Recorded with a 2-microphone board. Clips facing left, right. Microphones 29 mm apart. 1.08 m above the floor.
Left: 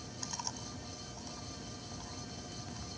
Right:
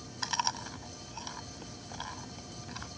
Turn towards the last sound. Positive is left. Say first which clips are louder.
# right 11 dB
turn(degrees=-65)  # may be behind; listen again after turning